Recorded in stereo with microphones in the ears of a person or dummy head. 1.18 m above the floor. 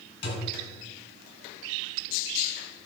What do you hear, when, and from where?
0.2 s a thud: 35° left (ahead or behind), 3 m